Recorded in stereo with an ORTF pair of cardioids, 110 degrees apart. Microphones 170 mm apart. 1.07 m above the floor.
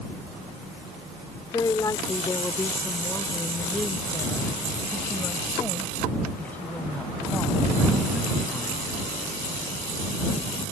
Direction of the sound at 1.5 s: 25° left.